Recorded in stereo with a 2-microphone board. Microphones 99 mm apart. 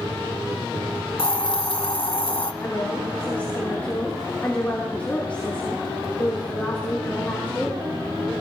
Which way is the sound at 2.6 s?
15° left (ahead or behind).